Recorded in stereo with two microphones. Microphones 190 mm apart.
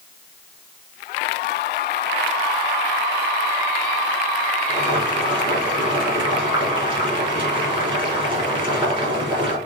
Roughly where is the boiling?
Right.